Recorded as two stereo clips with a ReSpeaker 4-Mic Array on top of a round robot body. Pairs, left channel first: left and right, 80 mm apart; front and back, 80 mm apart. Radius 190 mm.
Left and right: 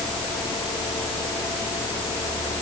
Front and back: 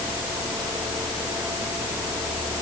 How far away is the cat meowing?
No cat meowing in this recording.